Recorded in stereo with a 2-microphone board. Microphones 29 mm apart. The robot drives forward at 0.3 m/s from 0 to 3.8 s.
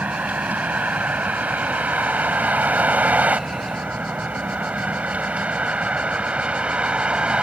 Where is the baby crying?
No baby crying in this recording.